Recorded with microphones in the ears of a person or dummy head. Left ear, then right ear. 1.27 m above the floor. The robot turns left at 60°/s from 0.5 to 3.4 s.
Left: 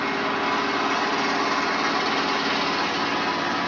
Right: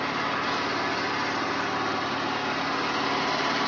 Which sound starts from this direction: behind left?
An engine running, at 0.0 s.